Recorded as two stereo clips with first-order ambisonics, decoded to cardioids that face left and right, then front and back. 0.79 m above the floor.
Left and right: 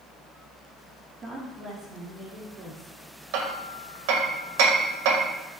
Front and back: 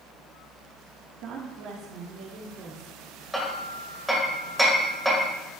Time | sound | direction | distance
1.2 | a woman speaking | 155° right | 1.4 m
3.3 | hammering | 90° right | 1.9 m